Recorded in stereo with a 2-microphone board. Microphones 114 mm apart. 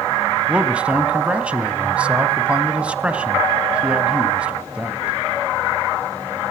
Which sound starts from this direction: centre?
A man speaking, at 0.5 s.